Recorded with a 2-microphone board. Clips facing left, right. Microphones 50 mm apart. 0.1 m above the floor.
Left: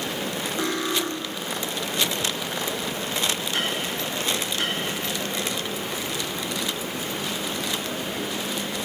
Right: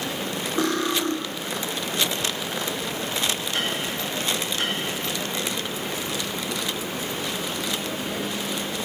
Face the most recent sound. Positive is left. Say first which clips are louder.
# right 3 dB
turn(degrees=-55)  # may be behind; listen again after turning